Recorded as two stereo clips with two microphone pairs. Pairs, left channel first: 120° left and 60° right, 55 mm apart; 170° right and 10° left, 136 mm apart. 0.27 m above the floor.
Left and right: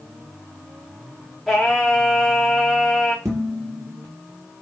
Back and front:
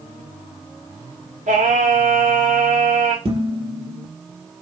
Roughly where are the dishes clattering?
Ahead right.